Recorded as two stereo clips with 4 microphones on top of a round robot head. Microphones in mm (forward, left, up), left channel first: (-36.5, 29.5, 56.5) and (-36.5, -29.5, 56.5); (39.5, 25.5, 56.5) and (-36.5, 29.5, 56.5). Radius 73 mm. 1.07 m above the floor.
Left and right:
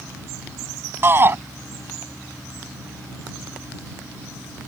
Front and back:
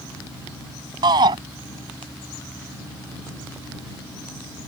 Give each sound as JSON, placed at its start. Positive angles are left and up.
{"t": 1.0, "sound": "a shout", "azimuth_deg": -140}